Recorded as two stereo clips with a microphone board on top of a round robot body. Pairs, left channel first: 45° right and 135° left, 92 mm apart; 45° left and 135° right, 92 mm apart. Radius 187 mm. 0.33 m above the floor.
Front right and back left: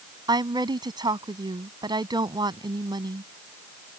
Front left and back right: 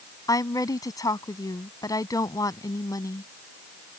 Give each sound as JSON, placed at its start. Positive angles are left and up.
{"t": 0.3, "sound": "a woman speaking", "azimuth_deg": 95}